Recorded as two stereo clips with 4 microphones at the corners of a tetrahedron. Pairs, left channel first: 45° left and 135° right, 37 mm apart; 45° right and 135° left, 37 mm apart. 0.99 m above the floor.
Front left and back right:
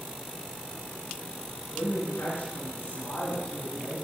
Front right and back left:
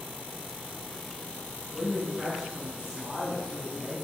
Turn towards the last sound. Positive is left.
turn(degrees=50)